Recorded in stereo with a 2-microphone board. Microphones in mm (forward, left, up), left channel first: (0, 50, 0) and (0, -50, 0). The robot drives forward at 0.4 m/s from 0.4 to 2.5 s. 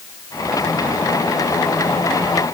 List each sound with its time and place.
Only background noise.